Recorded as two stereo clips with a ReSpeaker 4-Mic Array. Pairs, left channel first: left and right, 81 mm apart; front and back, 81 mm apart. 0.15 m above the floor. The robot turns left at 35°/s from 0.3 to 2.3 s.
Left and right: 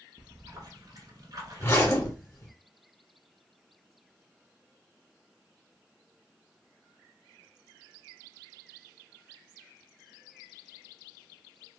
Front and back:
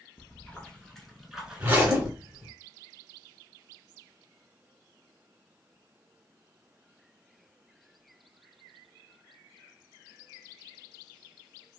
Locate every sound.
0.2 s a splash: 60° right, 0.9 m; by 2.1 s 125° right, 0.9 m
1.6 s a zipper: 120° left, 1.4 m; by 2.5 s 95° left, 1.4 m